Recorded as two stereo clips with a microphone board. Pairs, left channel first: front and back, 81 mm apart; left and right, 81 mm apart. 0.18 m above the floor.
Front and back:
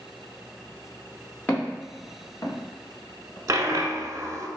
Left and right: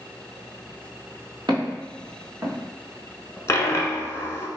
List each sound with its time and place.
1.5 s footsteps: 70° right, 1.8 m; by 3.4 s 5° left, 1.0 m
3.5 s a dropped coin: 140° left, 0.5 m